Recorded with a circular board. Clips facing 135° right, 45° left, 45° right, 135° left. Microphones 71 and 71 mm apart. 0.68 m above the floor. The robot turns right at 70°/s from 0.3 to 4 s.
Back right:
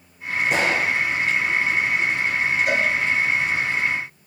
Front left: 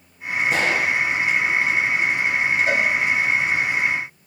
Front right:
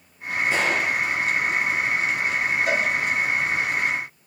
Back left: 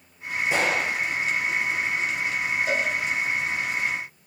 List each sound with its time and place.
0.5 s a gunshot: 150° right, 6.5 m; by 1.0 s 120° right, 6.5 m
2.7 s a cowbell: 15° right, 6 m; by 2.9 s straight ahead, 6 m